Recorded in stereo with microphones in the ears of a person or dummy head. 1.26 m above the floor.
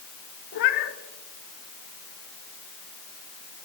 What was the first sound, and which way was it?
A cat meowing, 50° left (ahead or behind).